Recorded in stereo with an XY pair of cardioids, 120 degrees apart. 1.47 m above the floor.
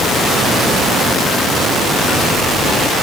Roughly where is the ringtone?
No ringtone in this recording.